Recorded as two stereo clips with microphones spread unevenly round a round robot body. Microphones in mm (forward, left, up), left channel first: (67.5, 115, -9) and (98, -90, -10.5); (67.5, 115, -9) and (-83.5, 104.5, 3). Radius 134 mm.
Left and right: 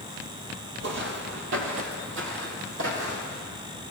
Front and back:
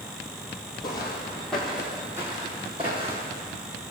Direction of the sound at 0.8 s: 65° right.